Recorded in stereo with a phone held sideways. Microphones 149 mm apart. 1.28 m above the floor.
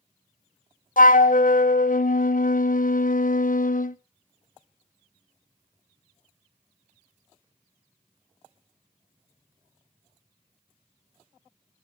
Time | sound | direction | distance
1.0 | a flute | 65° left (ahead or behind) | 0.5 m